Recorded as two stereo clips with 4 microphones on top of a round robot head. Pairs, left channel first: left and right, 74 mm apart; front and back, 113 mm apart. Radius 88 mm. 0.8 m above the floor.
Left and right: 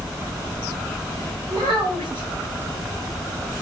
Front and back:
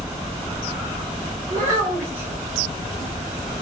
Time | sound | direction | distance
1.5 | a child speaking | 75° right | 1.8 m